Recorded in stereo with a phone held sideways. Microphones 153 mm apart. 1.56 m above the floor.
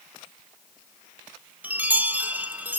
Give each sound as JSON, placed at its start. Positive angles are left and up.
{"t": 1.6, "sound": "a chime", "side_deg": -10, "distance_m": 0.8}